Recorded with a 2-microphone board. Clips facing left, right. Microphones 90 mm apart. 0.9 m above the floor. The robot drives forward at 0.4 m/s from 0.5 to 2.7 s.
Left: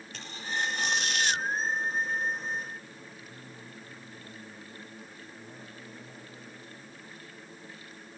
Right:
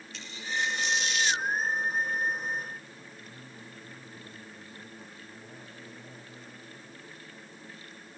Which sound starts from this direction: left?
Tearing paper, at 0.1 s.